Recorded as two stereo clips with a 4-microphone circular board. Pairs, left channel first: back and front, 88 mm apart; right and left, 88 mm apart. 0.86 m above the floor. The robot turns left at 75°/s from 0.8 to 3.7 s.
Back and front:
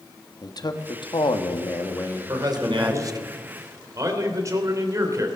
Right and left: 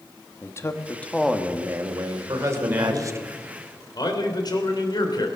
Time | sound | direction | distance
0.4 | a man speaking | 145° right | 1.3 m
2.3 | a man speaking | 55° left | 3 m